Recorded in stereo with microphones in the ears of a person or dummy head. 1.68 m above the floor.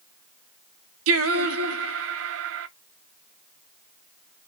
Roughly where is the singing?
Right.